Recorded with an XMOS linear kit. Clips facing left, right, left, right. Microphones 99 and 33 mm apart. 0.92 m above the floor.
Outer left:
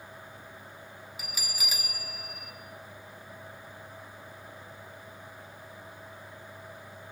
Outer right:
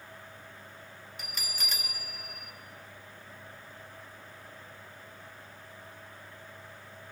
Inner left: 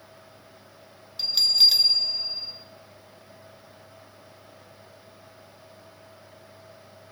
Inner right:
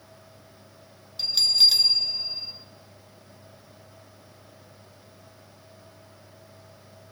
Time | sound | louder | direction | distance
1.2 | a bell | outer left 1 dB, even | 5° left (ahead or behind) | 0.6 m